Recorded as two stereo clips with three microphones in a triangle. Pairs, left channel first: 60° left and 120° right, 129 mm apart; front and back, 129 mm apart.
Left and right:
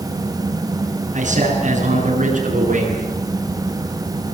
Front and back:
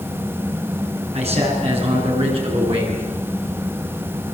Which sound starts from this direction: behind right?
A man speaking, at 1.1 s.